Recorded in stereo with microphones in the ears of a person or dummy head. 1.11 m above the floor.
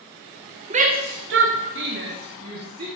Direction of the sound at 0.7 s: 35° right (ahead or behind).